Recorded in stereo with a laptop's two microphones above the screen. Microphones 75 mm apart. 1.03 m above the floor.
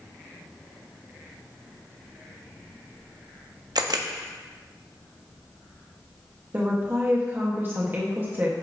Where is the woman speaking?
30° right (ahead or behind), 1.1 m.